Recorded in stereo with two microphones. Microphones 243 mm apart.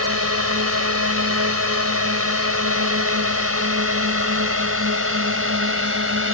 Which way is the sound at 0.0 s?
70° right (ahead or behind).